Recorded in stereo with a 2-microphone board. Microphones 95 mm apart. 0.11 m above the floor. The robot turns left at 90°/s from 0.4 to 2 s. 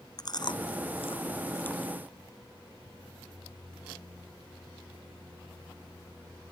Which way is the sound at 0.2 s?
45° left (ahead or behind).